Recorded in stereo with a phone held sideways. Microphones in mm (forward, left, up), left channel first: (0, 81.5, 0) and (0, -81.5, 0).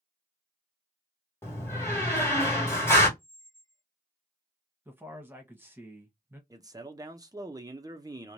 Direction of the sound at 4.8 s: 15° right (ahead or behind).